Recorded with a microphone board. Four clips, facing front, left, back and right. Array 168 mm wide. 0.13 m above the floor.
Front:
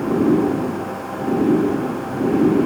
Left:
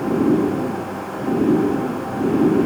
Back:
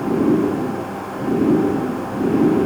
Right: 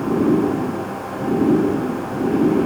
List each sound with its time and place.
Only background noise.